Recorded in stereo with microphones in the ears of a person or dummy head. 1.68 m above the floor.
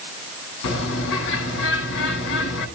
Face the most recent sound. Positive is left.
turn(degrees=65)  # may be behind; listen again after turning